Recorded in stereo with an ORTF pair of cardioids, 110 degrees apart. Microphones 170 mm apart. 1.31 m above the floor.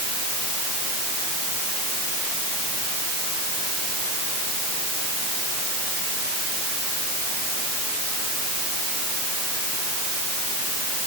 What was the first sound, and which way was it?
Only background noise.